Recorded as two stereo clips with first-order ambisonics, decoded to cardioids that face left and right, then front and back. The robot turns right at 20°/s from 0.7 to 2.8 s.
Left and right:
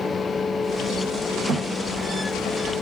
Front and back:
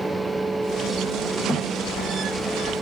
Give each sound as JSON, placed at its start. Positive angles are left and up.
{"t": 1.5, "sound": "a thud", "azimuth_deg": -65, "distance_m": 1.7}